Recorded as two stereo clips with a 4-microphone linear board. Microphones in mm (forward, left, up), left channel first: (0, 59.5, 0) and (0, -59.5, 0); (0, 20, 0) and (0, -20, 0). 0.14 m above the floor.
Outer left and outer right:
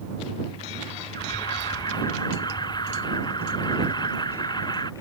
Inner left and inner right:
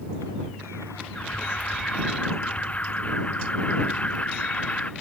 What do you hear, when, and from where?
1.1 s an alarm: 35° left (ahead or behind)